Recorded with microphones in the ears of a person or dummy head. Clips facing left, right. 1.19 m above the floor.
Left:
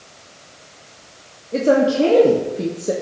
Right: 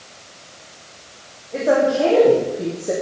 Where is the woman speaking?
50° left (ahead or behind), 2.5 m; by 2.9 s 35° left (ahead or behind), 1.8 m.